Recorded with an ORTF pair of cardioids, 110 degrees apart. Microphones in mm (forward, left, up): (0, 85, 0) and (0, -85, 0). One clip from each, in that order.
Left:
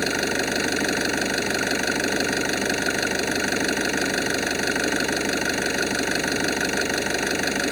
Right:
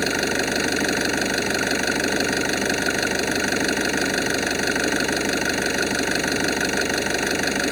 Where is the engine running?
5° right.